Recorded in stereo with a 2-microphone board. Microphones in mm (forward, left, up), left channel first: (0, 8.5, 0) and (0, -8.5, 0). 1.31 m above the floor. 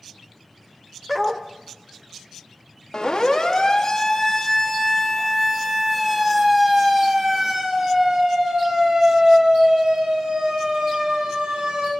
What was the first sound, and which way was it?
A dog barking, 5° right (ahead or behind).